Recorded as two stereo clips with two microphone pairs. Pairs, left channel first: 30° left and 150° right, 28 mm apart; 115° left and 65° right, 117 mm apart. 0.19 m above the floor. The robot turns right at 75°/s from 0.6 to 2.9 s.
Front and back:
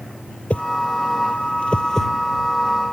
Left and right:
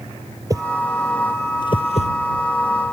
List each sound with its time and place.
0.5 s a whoosh: 5° right; by 2.1 s 105° left